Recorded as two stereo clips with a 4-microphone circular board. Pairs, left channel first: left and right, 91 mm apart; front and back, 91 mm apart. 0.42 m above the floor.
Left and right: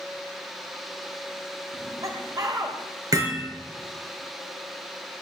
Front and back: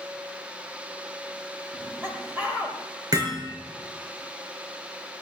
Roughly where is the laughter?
Behind right.